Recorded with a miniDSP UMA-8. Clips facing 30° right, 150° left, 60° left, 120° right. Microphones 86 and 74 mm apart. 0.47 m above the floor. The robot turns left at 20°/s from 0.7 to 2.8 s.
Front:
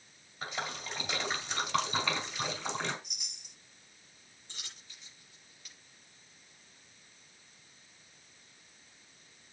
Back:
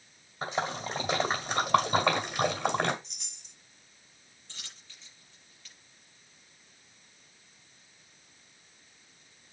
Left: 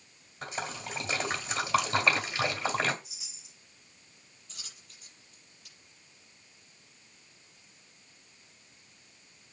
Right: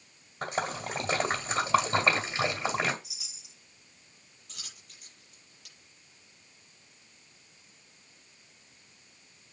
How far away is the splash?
About 2.0 m.